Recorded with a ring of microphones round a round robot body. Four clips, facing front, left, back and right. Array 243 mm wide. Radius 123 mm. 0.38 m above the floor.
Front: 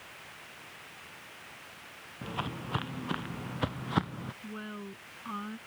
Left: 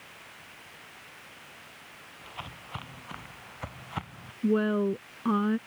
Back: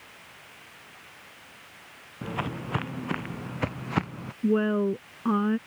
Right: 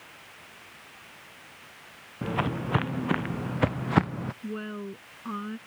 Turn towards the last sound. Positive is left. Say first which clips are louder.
# left 10 dB, back 24 dB
turn(degrees=150)